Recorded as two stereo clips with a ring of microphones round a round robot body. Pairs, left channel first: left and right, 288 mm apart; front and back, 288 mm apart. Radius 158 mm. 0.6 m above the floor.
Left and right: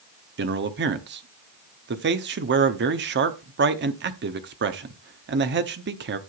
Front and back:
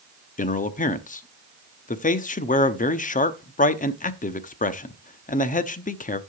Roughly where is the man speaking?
Ahead right.